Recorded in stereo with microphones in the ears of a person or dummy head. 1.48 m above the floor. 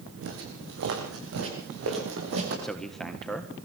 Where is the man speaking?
5° left (ahead or behind), 1.5 m.